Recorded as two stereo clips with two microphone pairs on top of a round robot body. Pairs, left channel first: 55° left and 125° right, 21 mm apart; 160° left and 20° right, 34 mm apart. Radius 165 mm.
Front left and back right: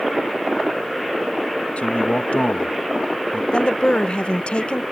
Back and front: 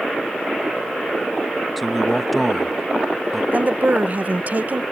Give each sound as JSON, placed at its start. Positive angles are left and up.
{"t": 1.8, "sound": "a man speaking", "azimuth_deg": 70}
{"t": 3.5, "sound": "a woman speaking", "azimuth_deg": 25}